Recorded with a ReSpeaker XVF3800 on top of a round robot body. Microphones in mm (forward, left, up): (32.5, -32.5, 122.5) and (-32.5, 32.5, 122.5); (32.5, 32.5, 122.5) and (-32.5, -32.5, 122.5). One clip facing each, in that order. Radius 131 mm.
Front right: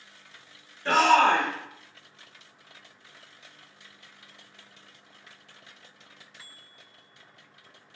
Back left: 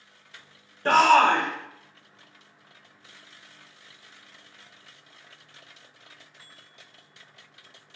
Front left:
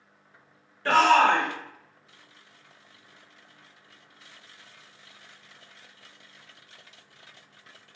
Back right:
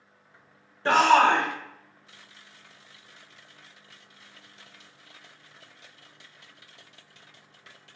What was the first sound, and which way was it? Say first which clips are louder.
A shout: back left 2 dB, even; 160° left.